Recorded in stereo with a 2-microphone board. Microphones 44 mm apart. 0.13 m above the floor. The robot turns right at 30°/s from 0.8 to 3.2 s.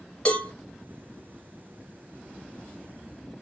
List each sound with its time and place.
0.2 s a cowbell: 20° left (ahead or behind), 1.8 m